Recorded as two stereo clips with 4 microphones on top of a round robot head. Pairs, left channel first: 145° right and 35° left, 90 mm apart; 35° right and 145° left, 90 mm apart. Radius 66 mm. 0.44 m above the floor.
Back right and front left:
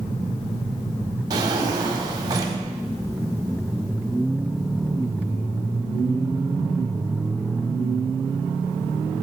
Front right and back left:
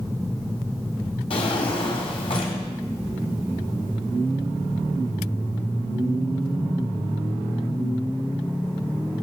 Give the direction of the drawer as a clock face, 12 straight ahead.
12 o'clock.